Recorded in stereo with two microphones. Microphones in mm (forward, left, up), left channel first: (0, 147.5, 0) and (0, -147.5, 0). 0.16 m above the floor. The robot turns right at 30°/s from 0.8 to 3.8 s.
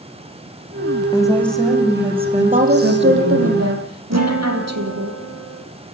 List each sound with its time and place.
1.1 s a woman speaking: 165° left, 10 m; by 3.5 s 120° right, 10 m
2.5 s a woman speaking: 155° right, 6 m; by 5.1 s 115° right, 6 m
4.1 s a guitar: 60° right (ahead or behind), 6 m